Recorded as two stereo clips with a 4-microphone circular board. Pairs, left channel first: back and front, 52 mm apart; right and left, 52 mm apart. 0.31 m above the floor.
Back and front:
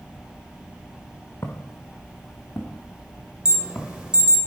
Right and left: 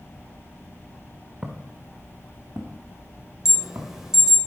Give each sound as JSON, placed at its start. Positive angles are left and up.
{"t": 1.4, "sound": "footsteps", "azimuth_deg": 155, "distance_m": 1.6}
{"t": 3.5, "sound": "an alarm", "azimuth_deg": 30, "distance_m": 1.9}